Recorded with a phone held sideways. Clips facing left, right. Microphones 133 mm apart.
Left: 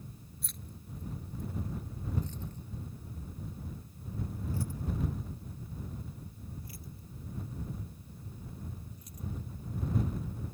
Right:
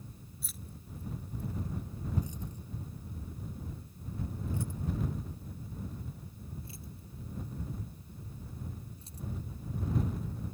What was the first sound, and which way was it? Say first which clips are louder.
Keys jangling: even; 5° right (ahead or behind).